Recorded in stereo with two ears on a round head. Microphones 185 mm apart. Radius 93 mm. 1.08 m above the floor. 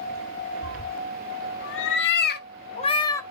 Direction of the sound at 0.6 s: 80° left.